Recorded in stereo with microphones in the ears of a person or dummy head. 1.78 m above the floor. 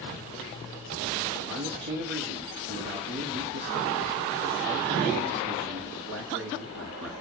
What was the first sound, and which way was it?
A man speaking, 60° right (ahead or behind).